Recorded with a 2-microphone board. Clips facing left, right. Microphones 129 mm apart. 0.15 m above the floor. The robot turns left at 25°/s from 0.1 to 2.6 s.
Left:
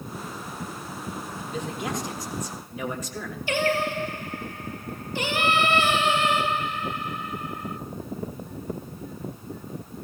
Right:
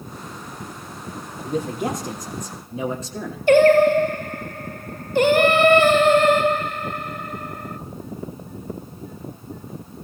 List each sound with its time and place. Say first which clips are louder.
1.4 s a man speaking: right 10 dB; 120° right, 4.5 m; by 3.4 s 150° right, 4.5 m
3.5 s singing: right 13 dB; 55° right (ahead or behind), 0.8 m